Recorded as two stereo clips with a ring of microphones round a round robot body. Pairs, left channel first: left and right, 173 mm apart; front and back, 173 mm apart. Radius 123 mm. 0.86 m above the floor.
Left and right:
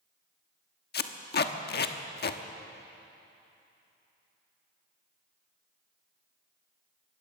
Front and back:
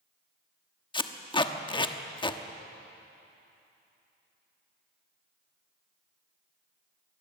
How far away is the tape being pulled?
About 1.2 m.